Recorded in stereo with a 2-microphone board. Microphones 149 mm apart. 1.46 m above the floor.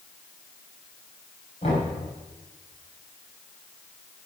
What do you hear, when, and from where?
1.6 s knocking: 45° left (ahead or behind), 5.5 m